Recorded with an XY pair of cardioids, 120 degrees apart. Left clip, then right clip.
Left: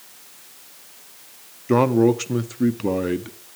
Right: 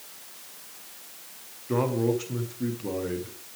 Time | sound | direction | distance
1.7 | a man speaking | 60° left | 0.7 m